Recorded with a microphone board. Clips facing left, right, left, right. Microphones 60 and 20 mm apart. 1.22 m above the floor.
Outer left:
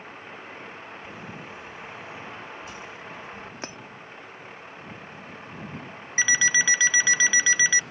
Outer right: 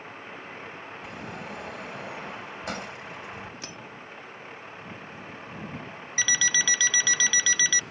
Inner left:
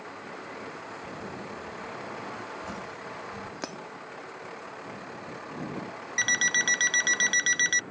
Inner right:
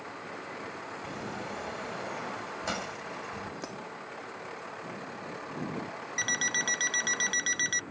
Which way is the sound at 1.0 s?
80° right.